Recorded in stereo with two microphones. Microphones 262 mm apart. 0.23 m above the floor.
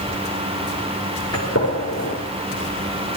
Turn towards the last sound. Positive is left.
turn(degrees=65)  # may be behind; listen again after turning